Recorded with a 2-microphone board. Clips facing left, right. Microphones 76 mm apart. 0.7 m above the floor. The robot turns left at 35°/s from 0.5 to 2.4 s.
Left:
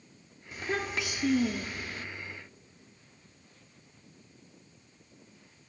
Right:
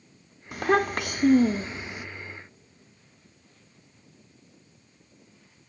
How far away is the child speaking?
About 0.7 m.